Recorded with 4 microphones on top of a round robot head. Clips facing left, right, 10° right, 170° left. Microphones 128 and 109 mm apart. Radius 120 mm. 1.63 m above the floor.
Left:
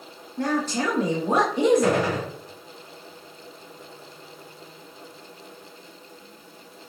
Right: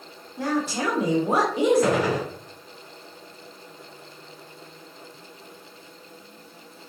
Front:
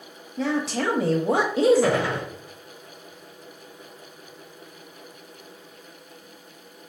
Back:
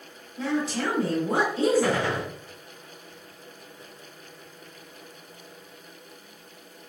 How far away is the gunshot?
About 1.4 m.